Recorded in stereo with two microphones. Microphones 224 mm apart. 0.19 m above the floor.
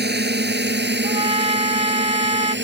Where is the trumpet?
30° right (ahead or behind).